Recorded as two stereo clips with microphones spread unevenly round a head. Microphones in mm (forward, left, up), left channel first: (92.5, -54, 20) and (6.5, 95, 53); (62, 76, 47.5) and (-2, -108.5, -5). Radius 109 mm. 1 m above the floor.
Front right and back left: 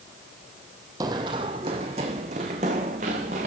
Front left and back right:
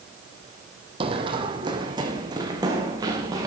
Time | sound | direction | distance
1.0 | running footsteps | 175° left | 1.4 m